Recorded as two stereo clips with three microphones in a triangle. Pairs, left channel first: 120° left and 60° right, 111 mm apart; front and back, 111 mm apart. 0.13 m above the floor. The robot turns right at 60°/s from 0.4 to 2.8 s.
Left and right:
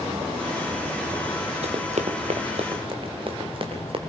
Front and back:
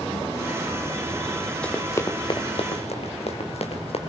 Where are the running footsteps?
80° right, 2.5 m; by 4.0 s 25° right, 4.5 m.